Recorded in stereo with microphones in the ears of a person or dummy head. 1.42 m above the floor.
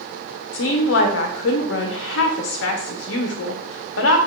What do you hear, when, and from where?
0.5 s a woman speaking: 75° left (ahead or behind), 0.6 m